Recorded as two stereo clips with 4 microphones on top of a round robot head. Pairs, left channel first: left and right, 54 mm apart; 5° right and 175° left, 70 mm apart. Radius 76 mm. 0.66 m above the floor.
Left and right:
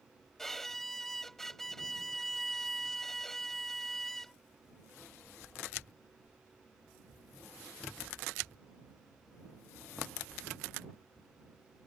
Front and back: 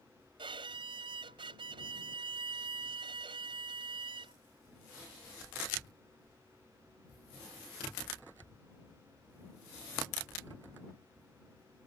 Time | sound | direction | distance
0.4 | a violin | 175° left | ?